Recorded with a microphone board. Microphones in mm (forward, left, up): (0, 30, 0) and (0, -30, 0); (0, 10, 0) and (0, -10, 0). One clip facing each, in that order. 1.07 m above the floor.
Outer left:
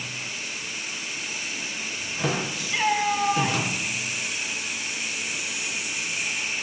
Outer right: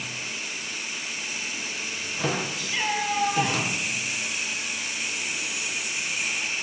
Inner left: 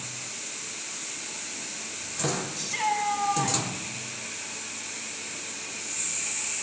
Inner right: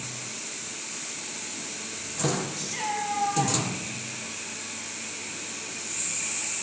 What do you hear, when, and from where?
2.5 s a shout: 5° left (ahead or behind), 6.5 m